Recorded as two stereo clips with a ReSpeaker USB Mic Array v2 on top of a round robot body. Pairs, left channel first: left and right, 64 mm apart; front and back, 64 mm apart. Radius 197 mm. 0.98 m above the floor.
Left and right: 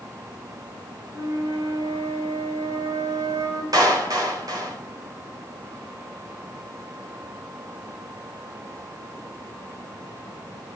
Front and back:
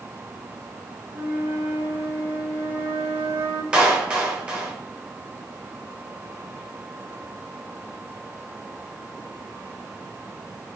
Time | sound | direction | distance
1.1 | a flute | 120° right | 3.5 m
3.7 | a clap | 105° right | 4 m